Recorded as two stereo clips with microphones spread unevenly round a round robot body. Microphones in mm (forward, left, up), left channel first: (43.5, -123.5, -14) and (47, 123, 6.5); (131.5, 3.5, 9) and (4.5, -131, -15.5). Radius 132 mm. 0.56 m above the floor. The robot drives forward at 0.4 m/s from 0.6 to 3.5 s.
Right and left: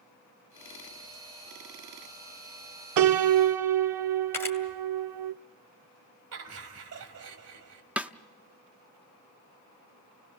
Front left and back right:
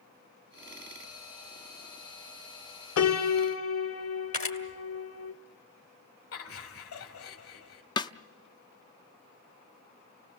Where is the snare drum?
Straight ahead, 0.5 m.